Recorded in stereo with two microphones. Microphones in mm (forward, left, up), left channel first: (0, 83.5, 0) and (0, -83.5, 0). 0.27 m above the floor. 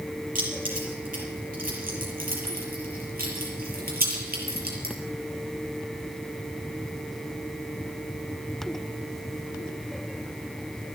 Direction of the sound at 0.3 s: 55° right (ahead or behind).